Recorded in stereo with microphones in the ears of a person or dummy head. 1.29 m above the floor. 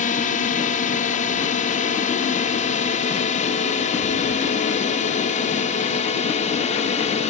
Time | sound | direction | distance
0.0 | a drone | 45° left (ahead or behind) | ?